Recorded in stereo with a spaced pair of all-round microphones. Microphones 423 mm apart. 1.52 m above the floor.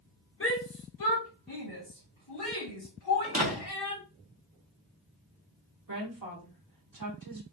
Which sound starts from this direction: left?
A shout, at 0.4 s.